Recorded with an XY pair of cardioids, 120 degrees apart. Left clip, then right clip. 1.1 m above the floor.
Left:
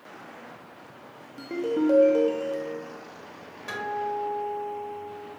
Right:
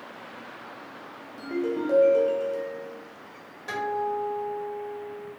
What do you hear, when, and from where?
1.4 s a ringtone: 20° left, 0.6 m
3.7 s a guitar: 10° left, 1.8 m